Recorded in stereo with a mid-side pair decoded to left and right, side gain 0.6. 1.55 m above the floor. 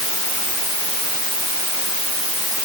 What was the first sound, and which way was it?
Only background noise.